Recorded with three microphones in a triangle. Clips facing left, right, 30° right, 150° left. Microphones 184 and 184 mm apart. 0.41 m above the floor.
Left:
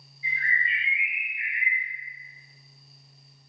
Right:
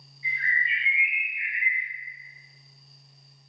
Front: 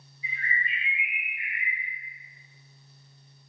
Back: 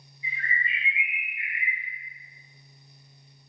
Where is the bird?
50° right, 1.7 m.